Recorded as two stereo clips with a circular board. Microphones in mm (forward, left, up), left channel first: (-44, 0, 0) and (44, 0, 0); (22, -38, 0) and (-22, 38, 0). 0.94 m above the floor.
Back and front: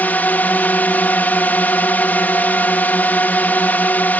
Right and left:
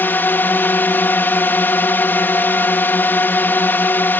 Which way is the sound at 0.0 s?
120° right.